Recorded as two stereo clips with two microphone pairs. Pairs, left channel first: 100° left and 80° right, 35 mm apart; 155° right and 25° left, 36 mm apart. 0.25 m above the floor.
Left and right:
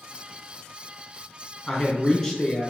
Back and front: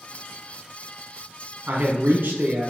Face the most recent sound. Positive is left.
turn(degrees=30)